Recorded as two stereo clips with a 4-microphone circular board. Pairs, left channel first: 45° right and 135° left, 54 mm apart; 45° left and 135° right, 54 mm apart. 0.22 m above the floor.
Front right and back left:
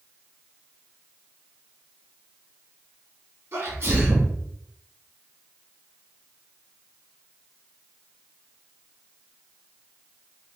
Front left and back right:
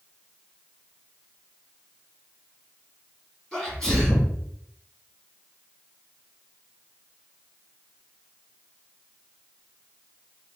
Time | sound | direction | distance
3.5 | a sneeze | 130° left | 1.9 m